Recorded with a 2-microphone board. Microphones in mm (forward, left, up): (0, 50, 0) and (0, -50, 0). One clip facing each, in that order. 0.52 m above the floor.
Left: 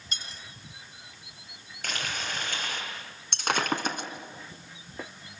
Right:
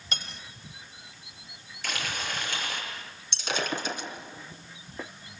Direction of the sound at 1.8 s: 50° left (ahead or behind).